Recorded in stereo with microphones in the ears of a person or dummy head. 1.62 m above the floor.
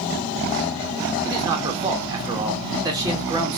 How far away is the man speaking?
About 1.2 m.